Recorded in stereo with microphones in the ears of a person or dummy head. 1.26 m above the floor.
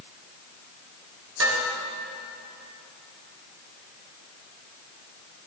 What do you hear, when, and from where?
1.4 s dishes clattering: 80° right, 3.5 m